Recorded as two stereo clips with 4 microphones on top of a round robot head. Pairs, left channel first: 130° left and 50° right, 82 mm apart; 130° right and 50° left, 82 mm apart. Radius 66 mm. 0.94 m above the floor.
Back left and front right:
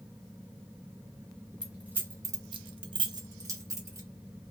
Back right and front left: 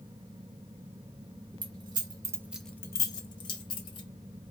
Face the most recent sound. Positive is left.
turn(degrees=-110)